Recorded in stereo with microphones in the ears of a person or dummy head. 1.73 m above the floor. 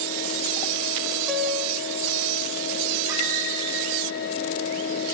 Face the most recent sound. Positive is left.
turn(degrees=-15)  # may be behind; listen again after turning